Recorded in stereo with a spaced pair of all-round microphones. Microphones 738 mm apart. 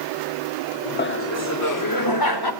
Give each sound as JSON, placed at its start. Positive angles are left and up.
{"t": 1.0, "sound": "laughter", "side_deg": 15, "distance_m": 0.8}